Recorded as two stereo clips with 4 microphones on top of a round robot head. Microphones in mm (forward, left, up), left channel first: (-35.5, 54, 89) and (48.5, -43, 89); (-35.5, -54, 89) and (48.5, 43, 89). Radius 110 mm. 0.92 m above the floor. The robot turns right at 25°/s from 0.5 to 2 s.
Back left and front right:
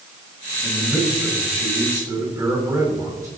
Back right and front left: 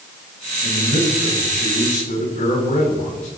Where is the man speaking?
145° right, 7.5 m; by 3.3 s 110° right, 7.5 m.